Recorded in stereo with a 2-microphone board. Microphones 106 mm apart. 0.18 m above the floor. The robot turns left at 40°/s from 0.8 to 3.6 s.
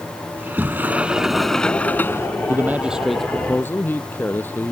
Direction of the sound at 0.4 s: 160° right.